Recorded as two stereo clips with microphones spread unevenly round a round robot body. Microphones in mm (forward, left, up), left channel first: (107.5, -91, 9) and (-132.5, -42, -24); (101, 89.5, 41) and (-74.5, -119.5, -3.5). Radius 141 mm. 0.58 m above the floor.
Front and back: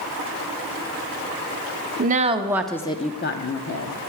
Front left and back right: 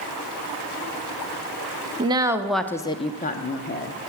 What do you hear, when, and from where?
2.0 s a woman speaking: straight behind, 1.0 m; by 4.1 s straight ahead, 1.3 m